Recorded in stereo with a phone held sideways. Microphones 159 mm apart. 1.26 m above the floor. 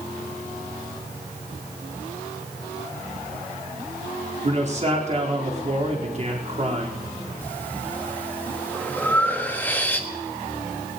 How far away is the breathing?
About 1.3 m.